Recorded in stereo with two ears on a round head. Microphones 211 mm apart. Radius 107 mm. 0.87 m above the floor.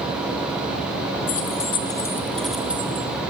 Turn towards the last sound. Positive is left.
turn(degrees=-10)  # may be behind; listen again after turning